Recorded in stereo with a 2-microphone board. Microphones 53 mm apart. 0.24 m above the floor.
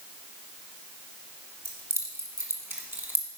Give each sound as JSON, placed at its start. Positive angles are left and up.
{"t": 1.6, "sound": "keys jangling", "side_deg": -65, "distance_m": 2.0}